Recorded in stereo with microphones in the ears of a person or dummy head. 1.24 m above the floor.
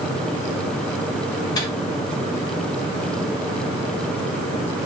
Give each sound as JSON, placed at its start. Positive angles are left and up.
{"t": 1.6, "sound": "a microwave", "side_deg": 20, "distance_m": 2.0}